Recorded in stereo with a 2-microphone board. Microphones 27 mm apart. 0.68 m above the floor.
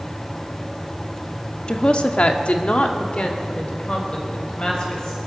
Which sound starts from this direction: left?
A woman speaking, at 1.7 s.